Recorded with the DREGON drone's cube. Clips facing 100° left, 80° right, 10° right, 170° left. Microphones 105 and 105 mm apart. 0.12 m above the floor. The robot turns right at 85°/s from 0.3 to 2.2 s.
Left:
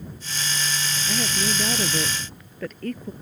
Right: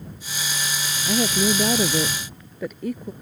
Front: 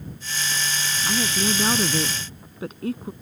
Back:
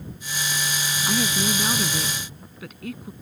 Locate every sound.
1.1 s a woman speaking: 105° right; by 3.1 s 10° right